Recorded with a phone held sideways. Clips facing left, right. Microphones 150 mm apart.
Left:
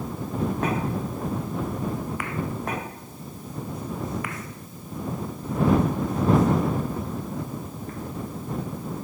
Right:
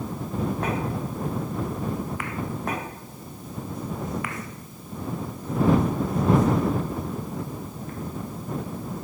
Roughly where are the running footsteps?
I don't hear running footsteps.